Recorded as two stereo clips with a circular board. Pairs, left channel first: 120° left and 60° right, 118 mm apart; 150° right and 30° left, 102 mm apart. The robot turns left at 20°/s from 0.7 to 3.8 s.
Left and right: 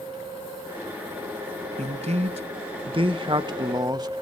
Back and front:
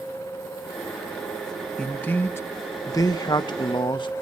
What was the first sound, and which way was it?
A man speaking, 70° right.